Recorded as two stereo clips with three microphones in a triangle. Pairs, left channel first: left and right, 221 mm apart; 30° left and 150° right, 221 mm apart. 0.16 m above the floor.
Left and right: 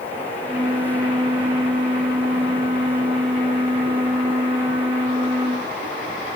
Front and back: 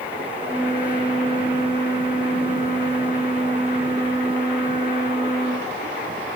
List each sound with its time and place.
0.4 s a flute: 125° right, 1.9 m